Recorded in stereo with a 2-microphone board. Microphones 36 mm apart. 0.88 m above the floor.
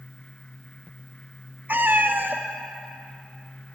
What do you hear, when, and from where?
1.7 s a cat meowing: 65° right (ahead or behind), 0.7 m